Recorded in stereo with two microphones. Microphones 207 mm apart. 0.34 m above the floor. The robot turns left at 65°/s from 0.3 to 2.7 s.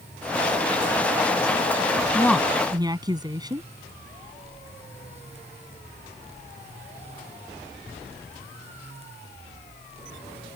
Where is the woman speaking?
15° left; by 3.7 s 20° right.